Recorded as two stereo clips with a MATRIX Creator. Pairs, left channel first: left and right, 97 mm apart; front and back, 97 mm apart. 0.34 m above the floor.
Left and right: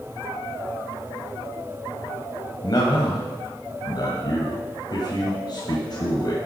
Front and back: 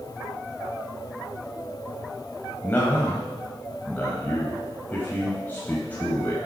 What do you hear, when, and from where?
2.6 s a man speaking: 65° left, 2.5 m